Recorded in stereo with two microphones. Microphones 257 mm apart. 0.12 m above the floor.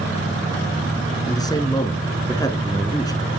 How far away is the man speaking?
About 1.6 m.